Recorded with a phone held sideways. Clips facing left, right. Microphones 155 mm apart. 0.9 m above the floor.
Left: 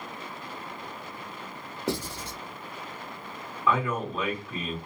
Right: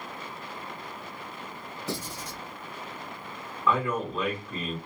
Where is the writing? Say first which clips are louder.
Left 5 dB; 80° left, 1.0 m.